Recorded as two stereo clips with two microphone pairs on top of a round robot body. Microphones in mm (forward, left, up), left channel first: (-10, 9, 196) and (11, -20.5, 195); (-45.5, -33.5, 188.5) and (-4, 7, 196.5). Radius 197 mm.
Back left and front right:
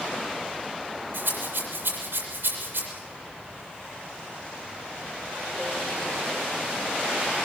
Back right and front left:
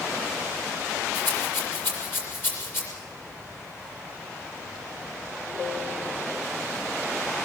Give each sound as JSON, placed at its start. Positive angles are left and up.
{"t": 1.1, "sound": "a rattle", "azimuth_deg": -80, "distance_m": 7.5}